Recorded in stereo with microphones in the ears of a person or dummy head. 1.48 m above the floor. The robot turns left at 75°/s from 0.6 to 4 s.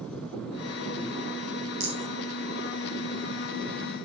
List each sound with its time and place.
1.8 s a rattle: 45° right (ahead or behind), 5 m; by 2.1 s 65° right (ahead or behind), 5 m